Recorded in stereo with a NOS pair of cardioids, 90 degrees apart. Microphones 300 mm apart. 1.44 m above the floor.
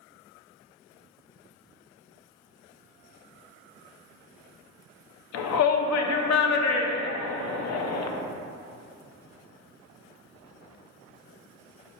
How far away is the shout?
About 0.6 m.